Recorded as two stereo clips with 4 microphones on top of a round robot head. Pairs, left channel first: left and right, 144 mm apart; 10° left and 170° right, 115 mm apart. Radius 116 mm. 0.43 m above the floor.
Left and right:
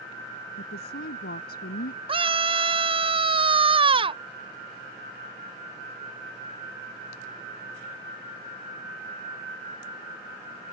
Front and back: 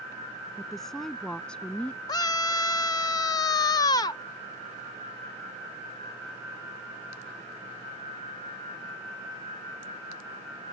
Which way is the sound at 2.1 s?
45° right.